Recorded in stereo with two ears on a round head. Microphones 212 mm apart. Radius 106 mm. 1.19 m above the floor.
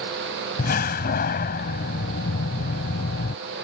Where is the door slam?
40° left (ahead or behind).